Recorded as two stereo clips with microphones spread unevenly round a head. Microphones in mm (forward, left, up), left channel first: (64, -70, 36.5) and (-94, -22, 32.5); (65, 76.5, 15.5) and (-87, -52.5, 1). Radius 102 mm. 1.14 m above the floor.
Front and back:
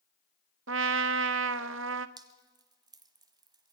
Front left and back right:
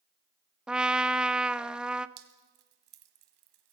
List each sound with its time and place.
0.7 s a trumpet: 135° left, 0.5 m
2.2 s dripping: 140° right, 1.2 m